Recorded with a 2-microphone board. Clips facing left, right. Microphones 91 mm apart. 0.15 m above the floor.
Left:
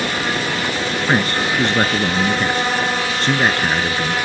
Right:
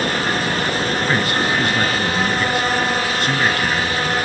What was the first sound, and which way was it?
A man speaking, 25° left (ahead or behind).